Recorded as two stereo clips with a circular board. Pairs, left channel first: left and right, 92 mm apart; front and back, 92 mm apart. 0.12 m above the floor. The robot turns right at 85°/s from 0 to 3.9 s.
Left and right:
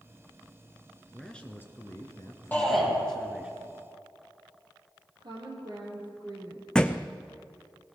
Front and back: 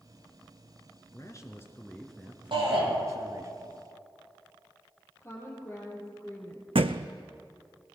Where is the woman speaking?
60° right, 4 m.